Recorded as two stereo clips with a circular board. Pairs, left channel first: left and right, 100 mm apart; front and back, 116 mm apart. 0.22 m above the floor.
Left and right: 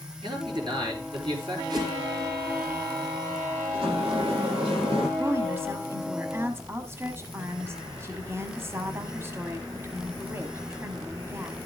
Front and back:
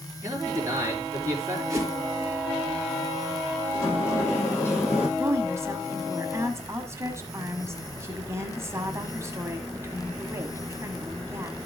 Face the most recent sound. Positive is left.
turn(degrees=-135)